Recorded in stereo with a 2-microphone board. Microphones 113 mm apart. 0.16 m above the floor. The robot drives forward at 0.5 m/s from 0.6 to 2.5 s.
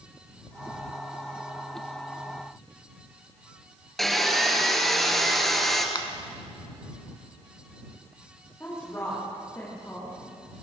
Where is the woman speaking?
20° left (ahead or behind), 9 m.